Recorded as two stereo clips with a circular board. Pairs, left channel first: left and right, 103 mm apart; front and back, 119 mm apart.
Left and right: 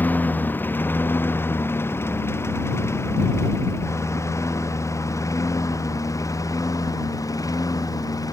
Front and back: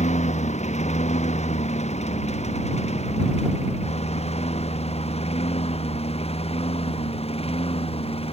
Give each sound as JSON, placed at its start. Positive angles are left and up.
{"t": 0.0, "sound": "a lawn mower", "azimuth_deg": 15}